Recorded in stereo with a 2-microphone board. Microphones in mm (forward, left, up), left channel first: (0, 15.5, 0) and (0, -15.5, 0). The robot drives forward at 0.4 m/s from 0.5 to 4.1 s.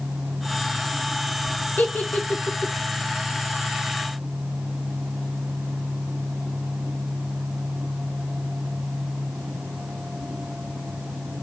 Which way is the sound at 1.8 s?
70° left (ahead or behind).